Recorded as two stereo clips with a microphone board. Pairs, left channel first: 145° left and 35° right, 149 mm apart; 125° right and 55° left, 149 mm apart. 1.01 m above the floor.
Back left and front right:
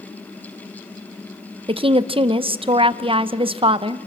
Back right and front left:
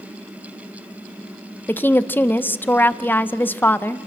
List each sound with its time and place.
1.7 s a woman speaking: 55° right, 0.5 m